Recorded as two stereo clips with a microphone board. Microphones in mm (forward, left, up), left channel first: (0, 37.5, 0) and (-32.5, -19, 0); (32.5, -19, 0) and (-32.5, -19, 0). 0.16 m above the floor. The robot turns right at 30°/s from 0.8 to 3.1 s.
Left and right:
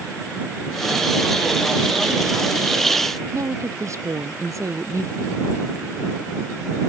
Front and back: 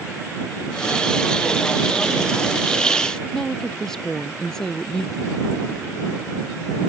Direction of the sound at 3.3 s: 80° right.